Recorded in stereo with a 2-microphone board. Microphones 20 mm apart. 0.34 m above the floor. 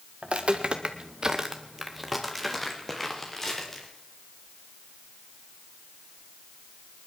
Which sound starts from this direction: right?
Footsteps, at 0.2 s.